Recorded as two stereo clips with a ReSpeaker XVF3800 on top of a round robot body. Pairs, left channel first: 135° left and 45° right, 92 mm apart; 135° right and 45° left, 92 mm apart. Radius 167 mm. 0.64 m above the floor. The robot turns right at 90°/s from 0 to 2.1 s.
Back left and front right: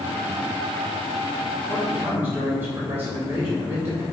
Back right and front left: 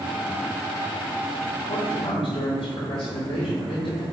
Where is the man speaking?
150° right, 3.5 m; by 4.0 s 115° right, 3.5 m.